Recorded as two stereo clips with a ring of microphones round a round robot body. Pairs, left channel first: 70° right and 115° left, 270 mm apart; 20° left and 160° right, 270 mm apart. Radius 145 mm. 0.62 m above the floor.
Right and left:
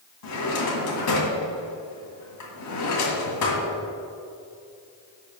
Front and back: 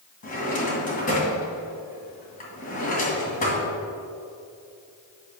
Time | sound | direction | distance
0.2 | a drawer | 40° right | 1.9 m